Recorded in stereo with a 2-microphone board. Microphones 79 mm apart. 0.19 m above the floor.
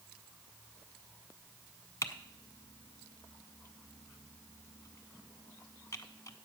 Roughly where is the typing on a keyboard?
Left.